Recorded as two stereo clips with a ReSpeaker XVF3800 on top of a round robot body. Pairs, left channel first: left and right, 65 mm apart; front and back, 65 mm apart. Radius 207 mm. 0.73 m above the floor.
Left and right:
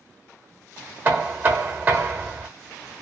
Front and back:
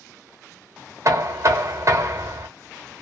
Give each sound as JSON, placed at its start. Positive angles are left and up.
{"t": 1.1, "sound": "knocking", "azimuth_deg": -145, "distance_m": 0.9}